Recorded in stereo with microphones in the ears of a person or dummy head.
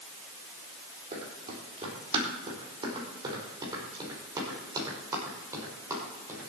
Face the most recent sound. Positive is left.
turn(degrees=-15)  # may be behind; listen again after turning